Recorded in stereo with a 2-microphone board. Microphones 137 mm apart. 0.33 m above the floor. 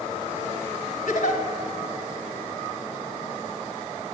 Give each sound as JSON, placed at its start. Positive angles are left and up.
{"t": 1.1, "sound": "a giggle", "side_deg": 70, "distance_m": 1.4}